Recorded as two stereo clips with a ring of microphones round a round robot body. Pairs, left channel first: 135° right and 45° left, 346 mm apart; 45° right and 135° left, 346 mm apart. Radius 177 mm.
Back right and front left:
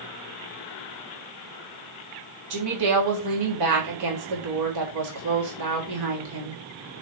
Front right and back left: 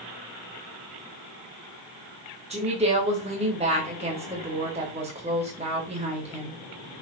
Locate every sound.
2.5 s a woman speaking: 65° left, 4 m